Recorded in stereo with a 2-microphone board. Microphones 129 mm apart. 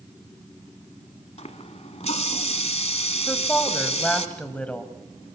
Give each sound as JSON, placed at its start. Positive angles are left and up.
{"t": 1.4, "sound": "a running tap", "side_deg": 55, "distance_m": 1.2}
{"t": 3.3, "sound": "a woman speaking", "side_deg": 10, "distance_m": 1.5}